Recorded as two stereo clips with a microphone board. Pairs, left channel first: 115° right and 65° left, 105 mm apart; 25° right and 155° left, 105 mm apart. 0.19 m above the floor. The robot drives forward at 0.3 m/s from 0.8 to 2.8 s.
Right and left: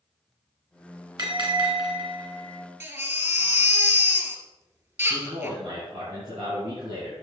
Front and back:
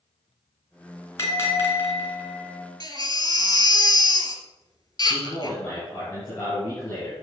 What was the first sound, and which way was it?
A bell, 35° left.